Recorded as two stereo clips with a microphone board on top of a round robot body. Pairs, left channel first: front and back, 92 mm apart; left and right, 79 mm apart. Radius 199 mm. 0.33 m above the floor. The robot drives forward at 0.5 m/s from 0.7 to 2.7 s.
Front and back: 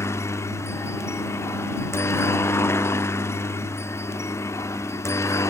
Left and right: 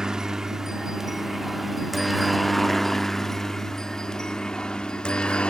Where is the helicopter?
15° right; by 5.5 s 25° left.